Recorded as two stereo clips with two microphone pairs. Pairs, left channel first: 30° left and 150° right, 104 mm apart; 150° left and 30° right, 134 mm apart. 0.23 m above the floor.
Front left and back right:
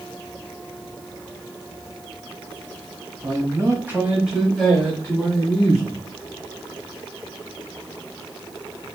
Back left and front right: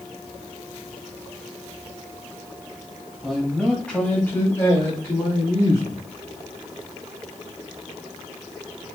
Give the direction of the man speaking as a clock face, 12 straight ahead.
4 o'clock.